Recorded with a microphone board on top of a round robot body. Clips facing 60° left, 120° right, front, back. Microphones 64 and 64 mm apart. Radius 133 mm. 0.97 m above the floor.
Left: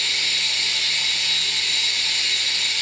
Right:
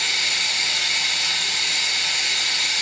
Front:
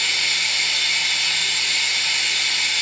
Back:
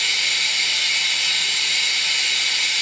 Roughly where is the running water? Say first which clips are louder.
Right 2 dB, even; right.